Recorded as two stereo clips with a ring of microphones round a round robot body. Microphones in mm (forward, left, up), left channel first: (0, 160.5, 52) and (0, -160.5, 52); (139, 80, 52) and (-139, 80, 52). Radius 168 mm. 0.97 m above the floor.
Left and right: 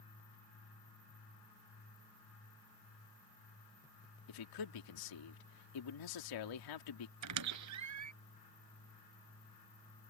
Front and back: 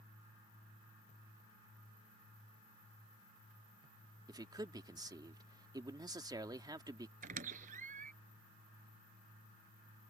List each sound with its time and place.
4.3 s a man speaking: 105° left
7.2 s a squeak: 115° right